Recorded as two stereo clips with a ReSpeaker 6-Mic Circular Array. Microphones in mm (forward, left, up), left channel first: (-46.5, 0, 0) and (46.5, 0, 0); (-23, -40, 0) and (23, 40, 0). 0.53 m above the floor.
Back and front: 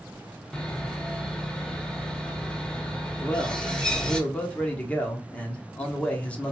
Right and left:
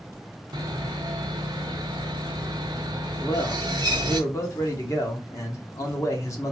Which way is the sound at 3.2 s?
115° right.